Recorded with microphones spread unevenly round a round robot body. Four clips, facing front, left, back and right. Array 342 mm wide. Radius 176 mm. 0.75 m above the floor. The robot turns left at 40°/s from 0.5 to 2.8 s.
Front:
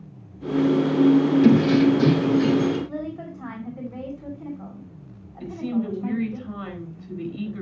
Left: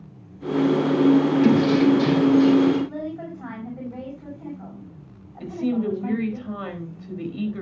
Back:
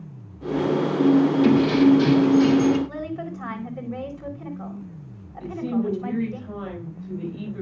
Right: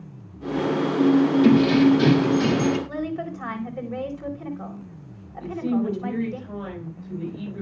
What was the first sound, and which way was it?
Keys jangling, 10° right.